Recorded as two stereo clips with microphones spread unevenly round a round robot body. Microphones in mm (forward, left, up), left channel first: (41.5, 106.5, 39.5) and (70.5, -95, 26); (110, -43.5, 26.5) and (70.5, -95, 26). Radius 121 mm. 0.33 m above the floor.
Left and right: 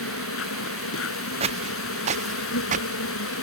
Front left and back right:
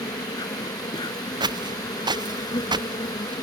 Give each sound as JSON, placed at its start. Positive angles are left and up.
{"t": 0.0, "sound": "an insect", "azimuth_deg": 90}
{"t": 1.4, "sound": "footsteps", "azimuth_deg": -150}